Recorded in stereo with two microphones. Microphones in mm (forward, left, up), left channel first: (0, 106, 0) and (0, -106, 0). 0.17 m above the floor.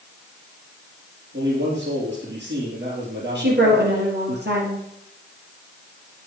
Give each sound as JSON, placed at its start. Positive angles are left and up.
{"t": 1.3, "sound": "a man speaking", "side_deg": -60, "distance_m": 4.5}
{"t": 3.4, "sound": "a woman speaking", "side_deg": -60, "distance_m": 3.0}